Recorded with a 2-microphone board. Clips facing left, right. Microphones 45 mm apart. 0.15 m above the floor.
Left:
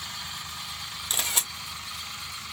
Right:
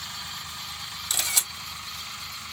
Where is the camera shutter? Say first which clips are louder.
Even; 35° left (ahead or behind), 1.7 m.